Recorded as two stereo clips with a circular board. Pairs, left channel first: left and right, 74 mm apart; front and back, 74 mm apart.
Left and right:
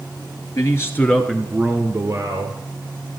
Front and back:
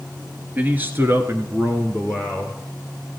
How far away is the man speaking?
About 1.6 m.